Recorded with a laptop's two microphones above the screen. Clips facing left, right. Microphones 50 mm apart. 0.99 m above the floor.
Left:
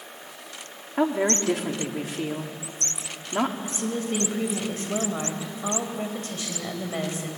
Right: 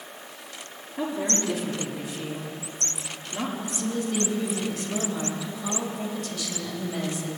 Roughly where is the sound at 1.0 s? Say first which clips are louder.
Left 5 dB; left.